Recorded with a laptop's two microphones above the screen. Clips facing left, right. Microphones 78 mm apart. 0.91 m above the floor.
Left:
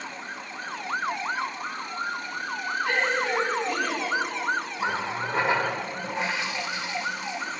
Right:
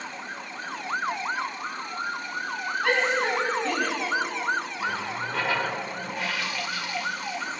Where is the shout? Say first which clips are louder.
Right 2 dB; 75° right (ahead or behind), 8 m; by 4.0 s 80° right, 7.5 m.